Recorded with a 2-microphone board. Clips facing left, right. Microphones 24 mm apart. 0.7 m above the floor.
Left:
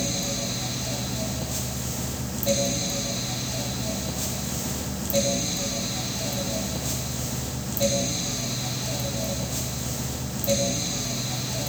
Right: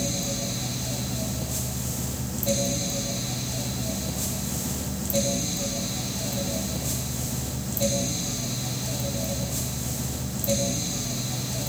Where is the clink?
I don't hear a clink.